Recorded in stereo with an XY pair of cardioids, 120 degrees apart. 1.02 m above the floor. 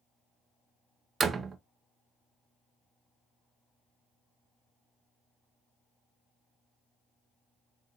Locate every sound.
1.2 s a door slam: 35° right, 0.5 m